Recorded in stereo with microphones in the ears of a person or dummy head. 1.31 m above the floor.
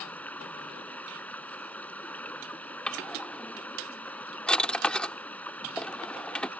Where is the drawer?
5° left (ahead or behind).